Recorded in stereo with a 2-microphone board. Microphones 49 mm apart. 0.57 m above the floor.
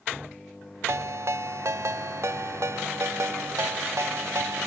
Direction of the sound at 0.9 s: 70° right (ahead or behind).